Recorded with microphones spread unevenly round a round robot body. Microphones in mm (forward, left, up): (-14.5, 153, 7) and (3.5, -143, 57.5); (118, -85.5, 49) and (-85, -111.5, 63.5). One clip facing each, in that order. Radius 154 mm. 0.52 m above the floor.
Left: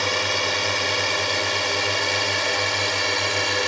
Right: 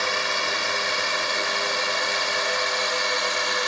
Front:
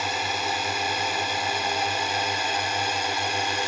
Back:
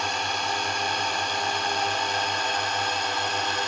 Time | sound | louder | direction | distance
0.0 | a drone | left 4 dB, front 1 dB | 85° left | ?